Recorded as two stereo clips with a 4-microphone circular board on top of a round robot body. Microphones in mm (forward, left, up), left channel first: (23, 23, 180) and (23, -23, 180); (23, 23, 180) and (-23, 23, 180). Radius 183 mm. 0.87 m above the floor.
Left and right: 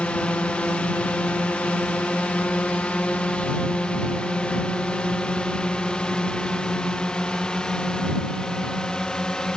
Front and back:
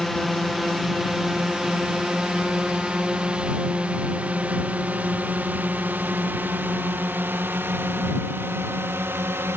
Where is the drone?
85° left; by 9.6 s 160° left.